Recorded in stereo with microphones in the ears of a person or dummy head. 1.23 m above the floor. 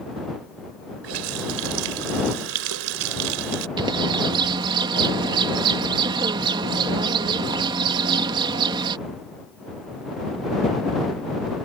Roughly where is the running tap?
Right.